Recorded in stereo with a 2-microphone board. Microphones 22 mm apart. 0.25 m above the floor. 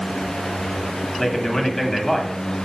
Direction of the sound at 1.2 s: 20° left (ahead or behind).